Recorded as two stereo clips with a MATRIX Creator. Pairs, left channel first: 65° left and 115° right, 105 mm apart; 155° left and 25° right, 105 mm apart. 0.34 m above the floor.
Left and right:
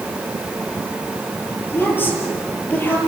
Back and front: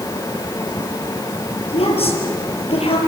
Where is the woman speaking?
135° left, 7.5 m.